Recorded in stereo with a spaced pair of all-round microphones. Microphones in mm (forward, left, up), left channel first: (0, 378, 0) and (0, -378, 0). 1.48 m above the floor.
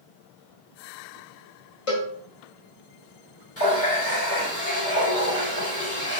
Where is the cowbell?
45° left (ahead or behind), 1.2 m.